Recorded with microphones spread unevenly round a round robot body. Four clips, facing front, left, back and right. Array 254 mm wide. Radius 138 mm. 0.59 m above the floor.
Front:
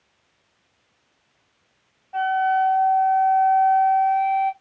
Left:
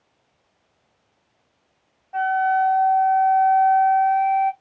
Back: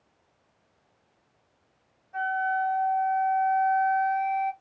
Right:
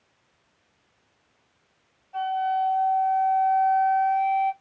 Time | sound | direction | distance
2.1 | a flute | 55° left | 0.7 m